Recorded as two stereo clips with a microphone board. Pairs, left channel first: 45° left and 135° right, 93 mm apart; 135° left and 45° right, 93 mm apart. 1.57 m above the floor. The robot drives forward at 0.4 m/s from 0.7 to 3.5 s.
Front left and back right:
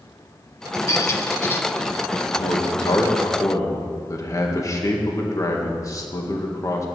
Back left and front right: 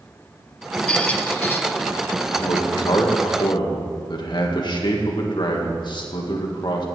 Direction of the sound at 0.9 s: 65° left.